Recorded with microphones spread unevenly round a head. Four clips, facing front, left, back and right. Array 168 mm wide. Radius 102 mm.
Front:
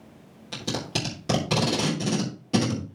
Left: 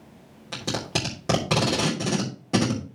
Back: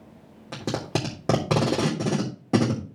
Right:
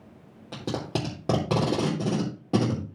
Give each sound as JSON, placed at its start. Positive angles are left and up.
{"t": 0.5, "sound": "tape being pulled", "azimuth_deg": -160, "distance_m": 3.5}